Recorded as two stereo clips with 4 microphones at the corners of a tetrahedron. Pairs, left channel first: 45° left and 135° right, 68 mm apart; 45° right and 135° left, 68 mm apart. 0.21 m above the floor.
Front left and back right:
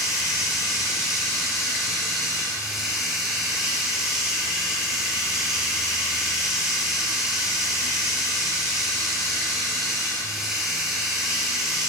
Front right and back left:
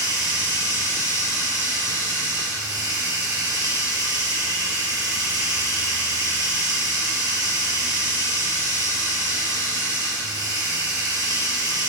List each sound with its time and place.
0.0 s running water: 145° left, 3.5 m